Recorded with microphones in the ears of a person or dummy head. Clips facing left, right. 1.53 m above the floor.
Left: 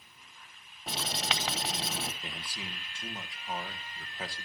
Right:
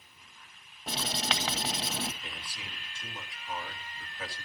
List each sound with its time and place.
0.9 s writing: 5° left (ahead or behind), 0.9 m
2.2 s a man speaking: 25° left (ahead or behind), 1.5 m